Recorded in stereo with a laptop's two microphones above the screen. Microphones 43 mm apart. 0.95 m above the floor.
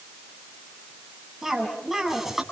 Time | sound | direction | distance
1.4 | a cough | 10° right (ahead or behind) | 7.5 m